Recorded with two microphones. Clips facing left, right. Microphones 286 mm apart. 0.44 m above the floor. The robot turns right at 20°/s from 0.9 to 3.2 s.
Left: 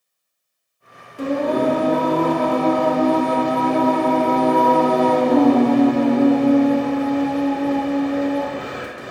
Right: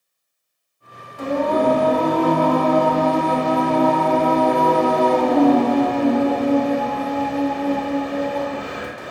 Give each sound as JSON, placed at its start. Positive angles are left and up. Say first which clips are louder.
{"t": 1.2, "sound": "singing", "louder": "even", "azimuth_deg": 110, "distance_m": 1.0}